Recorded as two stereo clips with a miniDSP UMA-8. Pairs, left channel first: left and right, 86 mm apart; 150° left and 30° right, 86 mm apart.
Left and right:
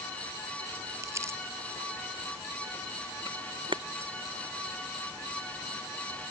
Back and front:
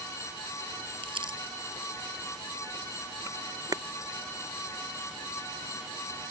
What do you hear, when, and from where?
1.0 s crumpling: 35° right
3.3 s a camera shutter: 70° right